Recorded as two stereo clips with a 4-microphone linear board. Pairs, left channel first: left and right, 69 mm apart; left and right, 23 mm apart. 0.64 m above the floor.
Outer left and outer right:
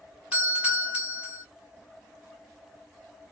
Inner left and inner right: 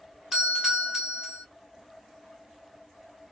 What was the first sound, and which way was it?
A doorbell, 15° right (ahead or behind).